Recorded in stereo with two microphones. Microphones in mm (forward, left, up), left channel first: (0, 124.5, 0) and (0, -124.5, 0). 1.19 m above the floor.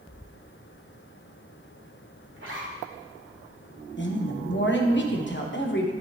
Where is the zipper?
50° right (ahead or behind), 1.6 m.